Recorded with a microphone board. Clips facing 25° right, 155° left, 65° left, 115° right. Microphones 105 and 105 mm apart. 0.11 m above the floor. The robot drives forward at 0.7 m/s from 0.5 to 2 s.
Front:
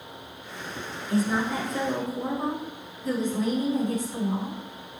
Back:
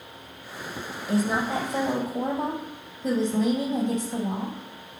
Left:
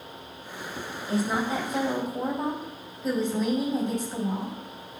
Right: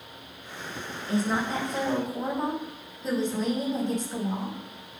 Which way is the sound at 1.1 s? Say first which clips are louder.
Back 1 dB, even; 150° left.